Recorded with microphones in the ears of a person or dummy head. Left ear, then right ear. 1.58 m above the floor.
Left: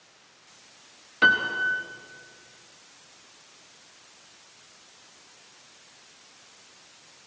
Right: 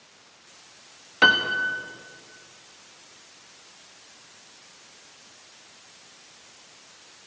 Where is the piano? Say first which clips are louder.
Right 2 dB; 15° right (ahead or behind), 1.2 m.